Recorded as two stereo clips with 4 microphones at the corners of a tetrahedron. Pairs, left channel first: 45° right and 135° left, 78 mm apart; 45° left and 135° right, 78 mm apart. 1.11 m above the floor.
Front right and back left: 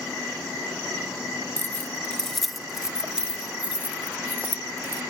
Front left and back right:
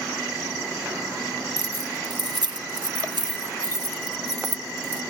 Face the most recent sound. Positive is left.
turn(degrees=-165)